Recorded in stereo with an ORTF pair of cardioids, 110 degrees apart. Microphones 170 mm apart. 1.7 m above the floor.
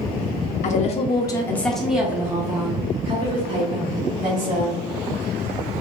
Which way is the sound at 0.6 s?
50° left.